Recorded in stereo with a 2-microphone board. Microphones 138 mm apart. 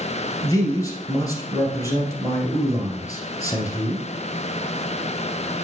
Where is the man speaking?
25° left (ahead or behind), 1.8 m.